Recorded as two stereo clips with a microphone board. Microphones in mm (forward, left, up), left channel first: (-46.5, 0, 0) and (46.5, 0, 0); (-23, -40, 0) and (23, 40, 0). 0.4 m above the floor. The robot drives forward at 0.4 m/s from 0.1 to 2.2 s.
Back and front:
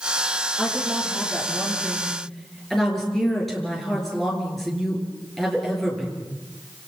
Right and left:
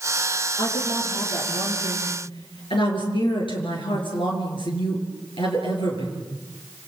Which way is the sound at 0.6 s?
90° right.